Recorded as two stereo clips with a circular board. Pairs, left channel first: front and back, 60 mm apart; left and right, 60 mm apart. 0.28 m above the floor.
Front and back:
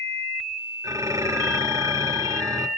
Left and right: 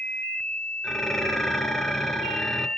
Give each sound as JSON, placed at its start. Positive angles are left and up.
{"t": 0.8, "sound": "dishes clattering", "azimuth_deg": 175, "distance_m": 3.0}